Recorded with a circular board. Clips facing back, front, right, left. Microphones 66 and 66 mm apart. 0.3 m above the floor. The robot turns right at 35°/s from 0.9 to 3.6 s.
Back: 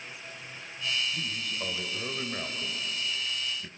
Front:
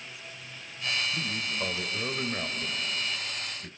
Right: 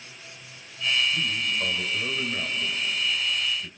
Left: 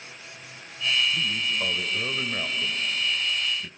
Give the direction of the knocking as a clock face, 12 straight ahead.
I don't hear knocking.